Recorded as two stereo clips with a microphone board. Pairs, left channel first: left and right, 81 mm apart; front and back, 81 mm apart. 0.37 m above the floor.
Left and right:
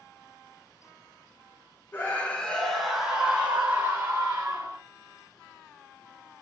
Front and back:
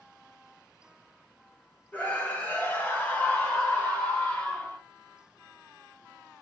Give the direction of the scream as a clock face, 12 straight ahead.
10 o'clock.